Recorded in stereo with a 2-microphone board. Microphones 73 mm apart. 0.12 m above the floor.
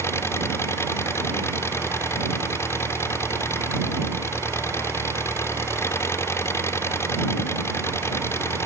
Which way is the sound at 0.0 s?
35° left (ahead or behind).